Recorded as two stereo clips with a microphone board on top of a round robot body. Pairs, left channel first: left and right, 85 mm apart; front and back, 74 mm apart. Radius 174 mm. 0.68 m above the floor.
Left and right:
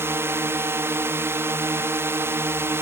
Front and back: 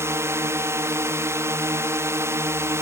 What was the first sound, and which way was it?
A drone, 140° right.